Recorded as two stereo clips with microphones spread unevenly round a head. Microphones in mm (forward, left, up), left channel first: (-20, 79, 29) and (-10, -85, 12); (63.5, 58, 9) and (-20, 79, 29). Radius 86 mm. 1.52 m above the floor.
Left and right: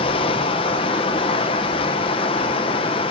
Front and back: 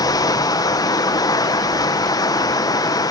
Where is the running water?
35° left, 0.9 m.